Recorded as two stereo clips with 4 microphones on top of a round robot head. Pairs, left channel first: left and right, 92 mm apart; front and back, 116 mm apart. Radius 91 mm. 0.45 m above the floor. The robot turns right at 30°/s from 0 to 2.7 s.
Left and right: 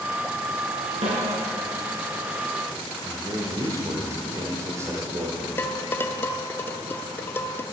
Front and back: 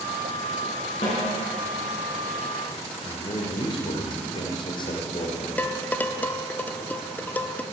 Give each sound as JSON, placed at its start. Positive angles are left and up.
{"t": 1.0, "sound": "a snare drum", "azimuth_deg": -65, "distance_m": 3.0}
{"t": 3.0, "sound": "a man speaking", "azimuth_deg": -35, "distance_m": 1.2}
{"t": 5.6, "sound": "dishes clattering", "azimuth_deg": 55, "distance_m": 0.6}